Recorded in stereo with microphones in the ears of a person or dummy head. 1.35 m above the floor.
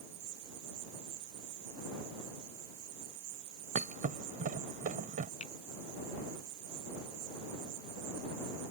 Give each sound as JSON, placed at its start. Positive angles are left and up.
{"t": 0.0, "sound": "an insect", "side_deg": -90}
{"t": 3.8, "sound": "a thud", "side_deg": -45}
{"t": 5.4, "sound": "a finger snap", "side_deg": 40}